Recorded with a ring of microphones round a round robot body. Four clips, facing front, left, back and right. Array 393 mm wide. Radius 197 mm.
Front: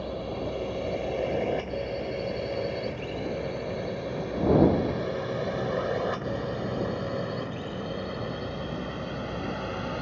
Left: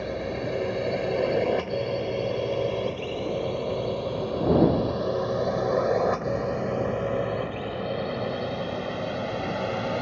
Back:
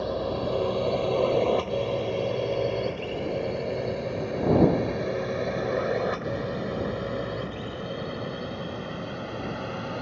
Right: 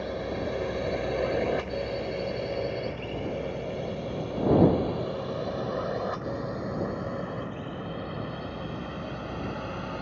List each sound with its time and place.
0.0 s a drone: 155° left; by 10.0 s 90° left